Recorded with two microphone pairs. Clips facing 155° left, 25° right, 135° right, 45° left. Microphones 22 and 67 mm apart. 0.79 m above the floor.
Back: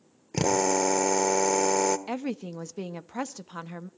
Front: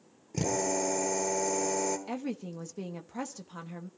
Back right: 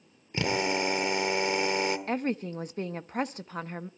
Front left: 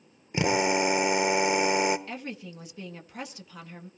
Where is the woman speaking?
155° right, 0.9 m.